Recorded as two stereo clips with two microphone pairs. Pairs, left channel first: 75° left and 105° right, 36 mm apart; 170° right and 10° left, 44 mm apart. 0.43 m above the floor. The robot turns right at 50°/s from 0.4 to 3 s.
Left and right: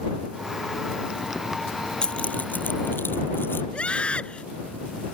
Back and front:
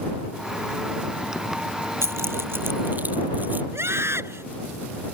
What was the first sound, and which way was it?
Keys jangling, 10° left.